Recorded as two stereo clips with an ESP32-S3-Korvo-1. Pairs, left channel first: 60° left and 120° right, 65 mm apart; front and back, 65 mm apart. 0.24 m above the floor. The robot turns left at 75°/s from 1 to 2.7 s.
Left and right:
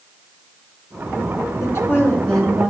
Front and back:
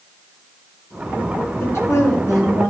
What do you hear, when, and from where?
1.6 s a woman speaking: 35° left, 3 m; by 2.7 s 45° right, 3 m